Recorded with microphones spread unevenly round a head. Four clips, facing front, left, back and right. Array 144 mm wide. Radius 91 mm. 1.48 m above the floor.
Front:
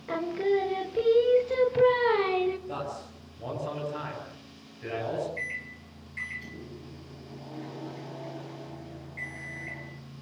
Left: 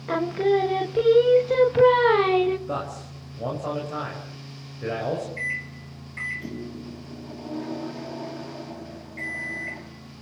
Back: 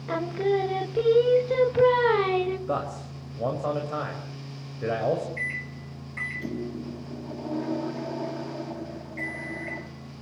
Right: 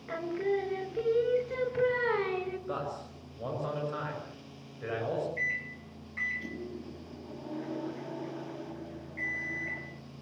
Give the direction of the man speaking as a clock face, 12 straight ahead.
6 o'clock.